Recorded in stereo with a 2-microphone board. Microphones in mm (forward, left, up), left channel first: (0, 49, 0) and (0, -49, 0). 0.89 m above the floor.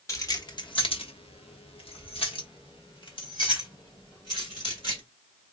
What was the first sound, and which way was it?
Keys jangling, 30° left (ahead or behind).